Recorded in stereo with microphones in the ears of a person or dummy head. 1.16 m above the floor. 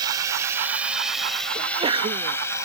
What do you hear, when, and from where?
0.0 s a drone: 15° right (ahead or behind); by 2.7 s 25° left (ahead or behind)
1.6 s a sneeze: 35° right (ahead or behind)